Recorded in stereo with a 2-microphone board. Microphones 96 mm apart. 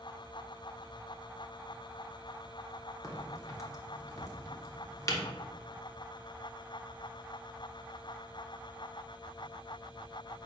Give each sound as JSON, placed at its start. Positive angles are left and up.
{"t": 3.0, "sound": "a crack", "side_deg": 35, "distance_m": 1.0}